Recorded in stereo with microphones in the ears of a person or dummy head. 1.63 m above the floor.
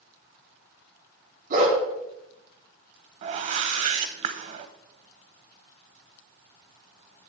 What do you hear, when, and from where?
1.5 s a dog barking: 50° right (ahead or behind), 3 m
3.2 s a whoosh: 40° right (ahead or behind), 0.8 m